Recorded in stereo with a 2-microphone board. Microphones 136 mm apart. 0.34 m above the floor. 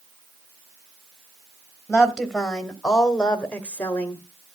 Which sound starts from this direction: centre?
A woman speaking, at 1.9 s.